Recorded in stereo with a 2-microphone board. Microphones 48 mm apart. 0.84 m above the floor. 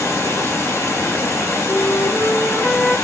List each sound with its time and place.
0.0 s running water: 80° left, 2.5 m
1.7 s a flute: 55° left (ahead or behind), 3.5 m